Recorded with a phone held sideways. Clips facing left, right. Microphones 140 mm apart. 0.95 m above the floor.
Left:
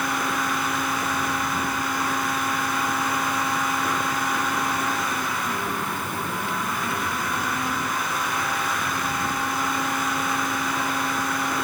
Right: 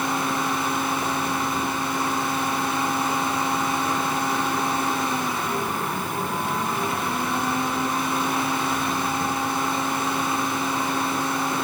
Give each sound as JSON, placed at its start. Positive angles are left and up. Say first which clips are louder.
{"t": 0.0, "sound": "a fan", "louder": "right 1 dB", "side_deg": -25, "distance_m": 5.0}